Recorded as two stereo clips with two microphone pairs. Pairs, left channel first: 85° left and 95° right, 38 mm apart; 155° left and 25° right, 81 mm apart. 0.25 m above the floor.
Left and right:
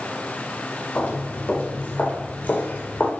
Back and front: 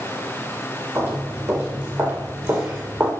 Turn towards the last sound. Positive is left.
turn(degrees=35)